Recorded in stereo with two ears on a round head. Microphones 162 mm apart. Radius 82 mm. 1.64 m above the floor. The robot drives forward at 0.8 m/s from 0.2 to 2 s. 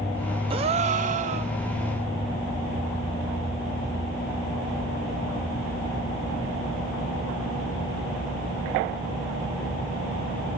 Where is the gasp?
30° right (ahead or behind), 0.7 m; by 1.5 s 35° right (ahead or behind), 0.6 m.